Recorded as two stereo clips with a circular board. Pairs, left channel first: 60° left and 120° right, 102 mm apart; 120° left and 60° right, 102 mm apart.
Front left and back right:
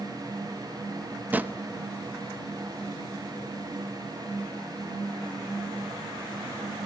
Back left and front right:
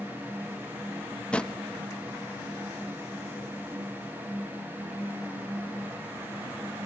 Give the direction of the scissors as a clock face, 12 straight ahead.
No scissors in this recording.